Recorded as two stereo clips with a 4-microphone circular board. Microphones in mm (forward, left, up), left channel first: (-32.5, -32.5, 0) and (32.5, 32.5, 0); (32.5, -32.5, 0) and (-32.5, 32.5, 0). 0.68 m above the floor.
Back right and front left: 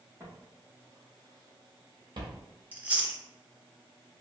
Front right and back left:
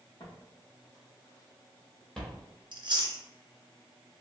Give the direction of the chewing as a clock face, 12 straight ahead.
8 o'clock.